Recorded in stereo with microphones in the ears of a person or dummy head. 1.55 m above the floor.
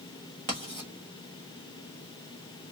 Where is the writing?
30° right (ahead or behind), 1.2 m.